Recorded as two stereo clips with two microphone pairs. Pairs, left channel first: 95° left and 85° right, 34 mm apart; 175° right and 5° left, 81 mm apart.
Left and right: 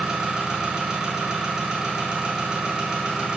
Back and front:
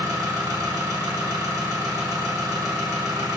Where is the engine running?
25° right, 0.7 m.